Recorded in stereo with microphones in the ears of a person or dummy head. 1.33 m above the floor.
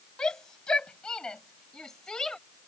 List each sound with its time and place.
0.2 s a shout: 5° left (ahead or behind); by 2.4 s centre (ahead or behind)